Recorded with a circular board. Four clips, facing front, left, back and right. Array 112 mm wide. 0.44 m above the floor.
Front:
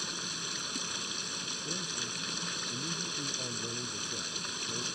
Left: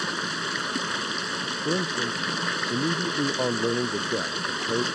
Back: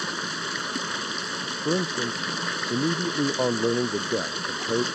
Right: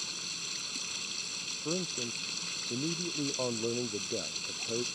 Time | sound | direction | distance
0.0 | running water | 130° left | ?
1.6 | a man speaking | 155° left | ?